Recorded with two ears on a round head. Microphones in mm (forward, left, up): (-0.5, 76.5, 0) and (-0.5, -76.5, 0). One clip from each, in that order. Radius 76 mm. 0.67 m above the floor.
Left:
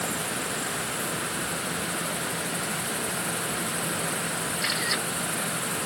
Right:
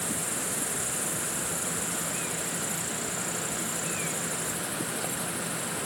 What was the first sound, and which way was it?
Only background noise.